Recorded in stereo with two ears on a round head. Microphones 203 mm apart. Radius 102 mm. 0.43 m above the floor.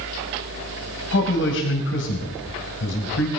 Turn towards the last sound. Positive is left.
turn(degrees=55)  # may be behind; listen again after turning